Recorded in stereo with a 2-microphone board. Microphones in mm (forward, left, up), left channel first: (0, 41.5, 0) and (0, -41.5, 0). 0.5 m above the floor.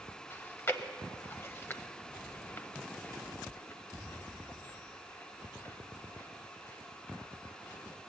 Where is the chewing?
30° left (ahead or behind), 0.7 m.